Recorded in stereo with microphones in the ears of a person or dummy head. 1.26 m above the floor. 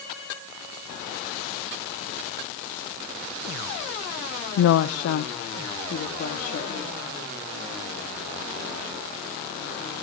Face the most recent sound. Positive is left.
turn(degrees=55)  # may be behind; listen again after turning